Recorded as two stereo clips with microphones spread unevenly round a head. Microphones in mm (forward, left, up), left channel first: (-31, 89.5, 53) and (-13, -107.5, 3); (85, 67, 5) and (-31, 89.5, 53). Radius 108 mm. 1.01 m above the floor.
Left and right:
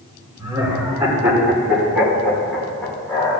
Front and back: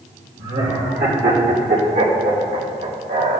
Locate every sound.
0.4 s laughter: 155° right, 3.5 m; by 3.4 s 175° left, 3.5 m